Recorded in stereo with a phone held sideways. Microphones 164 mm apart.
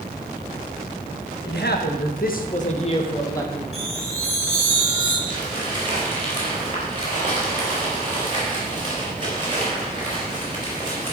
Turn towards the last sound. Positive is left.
turn(degrees=-30)  # may be behind; listen again after turning